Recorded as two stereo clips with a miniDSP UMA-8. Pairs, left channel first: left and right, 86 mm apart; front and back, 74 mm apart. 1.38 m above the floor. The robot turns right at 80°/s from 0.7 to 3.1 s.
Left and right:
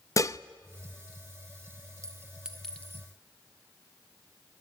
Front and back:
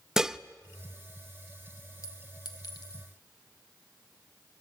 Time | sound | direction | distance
0.2 | dishes clattering | 100° left | 0.7 m
2.0 | a clink | 45° right | 1.7 m